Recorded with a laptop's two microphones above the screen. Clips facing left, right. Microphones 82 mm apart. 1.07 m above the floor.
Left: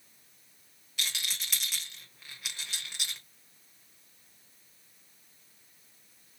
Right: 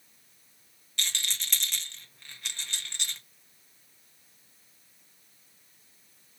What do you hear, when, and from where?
1.0 s a rattle: 5° left (ahead or behind), 0.9 m